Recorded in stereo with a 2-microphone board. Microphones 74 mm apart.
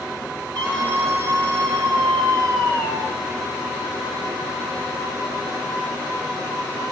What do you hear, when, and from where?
0.6 s a scream: 55° right (ahead or behind), 4 m; by 3.1 s 65° right (ahead or behind), 5 m